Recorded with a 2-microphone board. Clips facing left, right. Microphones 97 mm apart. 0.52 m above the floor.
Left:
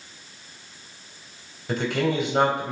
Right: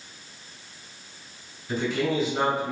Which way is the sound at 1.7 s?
70° left (ahead or behind).